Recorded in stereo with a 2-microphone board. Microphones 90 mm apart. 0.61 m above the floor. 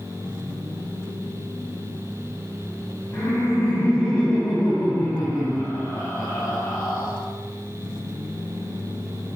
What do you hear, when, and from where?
3.1 s laughter: 30° left (ahead or behind), 3.5 m